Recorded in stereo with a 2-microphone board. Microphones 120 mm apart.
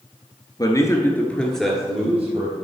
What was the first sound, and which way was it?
A man speaking, 35° left (ahead or behind).